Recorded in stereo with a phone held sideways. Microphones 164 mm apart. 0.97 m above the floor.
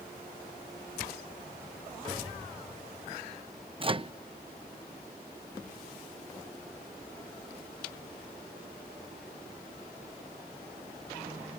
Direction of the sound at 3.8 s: 35° right (ahead or behind).